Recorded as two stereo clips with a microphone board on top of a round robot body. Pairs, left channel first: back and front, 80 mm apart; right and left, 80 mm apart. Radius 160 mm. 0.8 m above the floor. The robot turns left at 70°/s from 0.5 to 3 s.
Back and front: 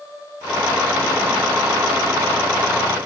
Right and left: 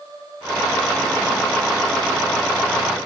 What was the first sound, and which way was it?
Only background noise.